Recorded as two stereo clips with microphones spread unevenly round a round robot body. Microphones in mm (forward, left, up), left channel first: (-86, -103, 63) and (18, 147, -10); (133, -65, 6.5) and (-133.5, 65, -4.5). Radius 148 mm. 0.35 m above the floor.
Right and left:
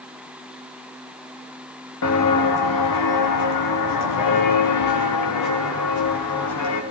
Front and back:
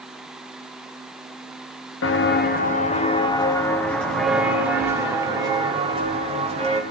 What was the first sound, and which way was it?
Footsteps, 75° right.